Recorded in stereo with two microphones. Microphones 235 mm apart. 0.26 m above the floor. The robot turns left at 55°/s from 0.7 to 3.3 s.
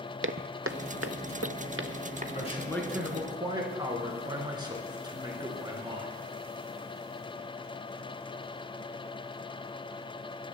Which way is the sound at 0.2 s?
60° right (ahead or behind).